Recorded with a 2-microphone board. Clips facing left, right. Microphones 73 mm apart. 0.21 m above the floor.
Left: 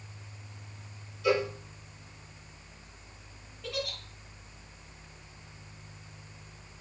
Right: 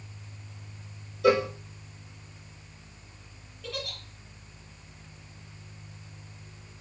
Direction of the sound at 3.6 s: 5° left (ahead or behind).